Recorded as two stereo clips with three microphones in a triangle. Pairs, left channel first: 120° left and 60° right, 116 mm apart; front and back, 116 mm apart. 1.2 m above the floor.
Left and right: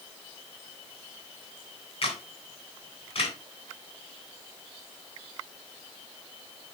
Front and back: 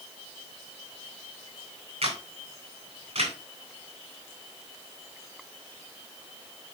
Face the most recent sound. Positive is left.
turn(degrees=155)